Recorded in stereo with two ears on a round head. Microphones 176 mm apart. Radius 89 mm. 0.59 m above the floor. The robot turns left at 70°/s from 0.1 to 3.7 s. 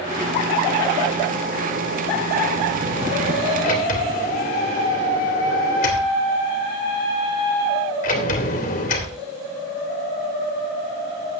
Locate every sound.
3.6 s a sliding door: 45° left (ahead or behind), 2 m; by 9.2 s 40° left (ahead or behind), 2 m